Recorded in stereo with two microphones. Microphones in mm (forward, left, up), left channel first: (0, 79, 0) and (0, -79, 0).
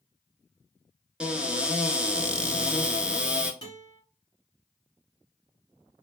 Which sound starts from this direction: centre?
A cupboard door, at 1.2 s.